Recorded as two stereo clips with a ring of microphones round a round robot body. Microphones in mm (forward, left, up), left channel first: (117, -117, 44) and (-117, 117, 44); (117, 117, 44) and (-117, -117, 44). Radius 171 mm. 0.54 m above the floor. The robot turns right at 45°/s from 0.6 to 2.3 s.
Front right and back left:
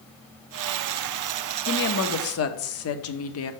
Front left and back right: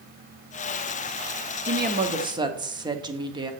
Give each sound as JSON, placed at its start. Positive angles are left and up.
{"t": 1.6, "sound": "a woman speaking", "azimuth_deg": -90, "distance_m": 0.8}